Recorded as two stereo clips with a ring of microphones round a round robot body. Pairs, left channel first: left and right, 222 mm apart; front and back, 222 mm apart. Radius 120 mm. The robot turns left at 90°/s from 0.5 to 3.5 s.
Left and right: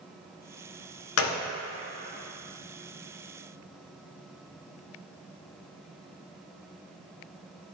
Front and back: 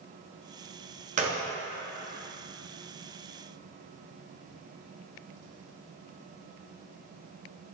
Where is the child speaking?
I don't hear a child speaking.